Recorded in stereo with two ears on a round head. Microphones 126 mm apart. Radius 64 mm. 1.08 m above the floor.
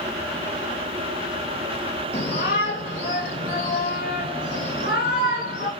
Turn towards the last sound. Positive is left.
turn(degrees=70)  # may be behind; listen again after turning